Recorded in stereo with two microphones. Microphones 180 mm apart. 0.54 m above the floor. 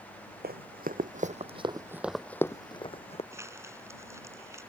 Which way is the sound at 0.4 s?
70° right (ahead or behind).